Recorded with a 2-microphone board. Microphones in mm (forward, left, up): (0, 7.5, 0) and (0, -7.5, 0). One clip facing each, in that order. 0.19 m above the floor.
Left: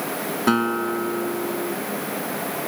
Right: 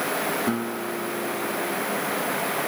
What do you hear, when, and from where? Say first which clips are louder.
0.5 s a guitar: left 6 dB; 55° left (ahead or behind)